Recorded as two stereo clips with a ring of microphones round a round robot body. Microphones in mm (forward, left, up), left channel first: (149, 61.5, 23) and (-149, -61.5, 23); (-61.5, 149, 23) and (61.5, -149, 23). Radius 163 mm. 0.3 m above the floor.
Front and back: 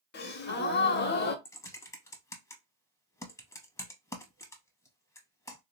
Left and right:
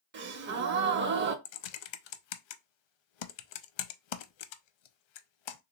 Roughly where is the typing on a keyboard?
Left.